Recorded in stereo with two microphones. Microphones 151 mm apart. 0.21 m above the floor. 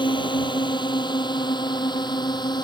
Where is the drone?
30° left (ahead or behind).